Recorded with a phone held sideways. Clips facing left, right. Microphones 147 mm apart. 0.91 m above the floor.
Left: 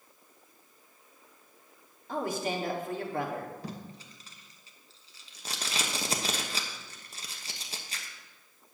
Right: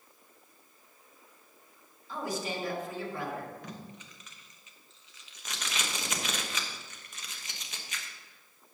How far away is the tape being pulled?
About 1.0 m.